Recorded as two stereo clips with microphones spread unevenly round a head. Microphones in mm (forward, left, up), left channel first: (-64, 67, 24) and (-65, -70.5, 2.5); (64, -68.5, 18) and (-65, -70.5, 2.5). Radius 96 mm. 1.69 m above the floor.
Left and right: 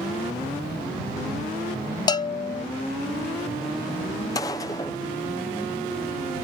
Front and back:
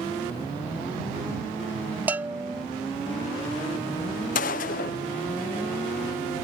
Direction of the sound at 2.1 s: 95° left.